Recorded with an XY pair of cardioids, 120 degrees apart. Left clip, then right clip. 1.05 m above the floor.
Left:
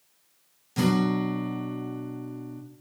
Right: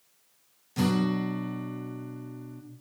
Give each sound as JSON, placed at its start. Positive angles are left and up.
{"t": 0.8, "sound": "a guitar", "azimuth_deg": 15, "distance_m": 0.5}